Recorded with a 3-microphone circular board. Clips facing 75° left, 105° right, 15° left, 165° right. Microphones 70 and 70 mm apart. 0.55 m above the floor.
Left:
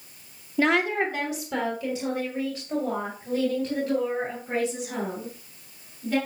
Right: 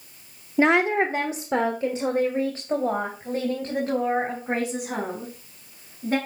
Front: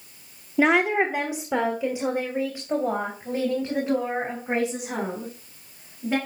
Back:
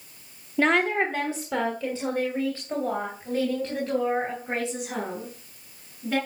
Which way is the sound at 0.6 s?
55° right.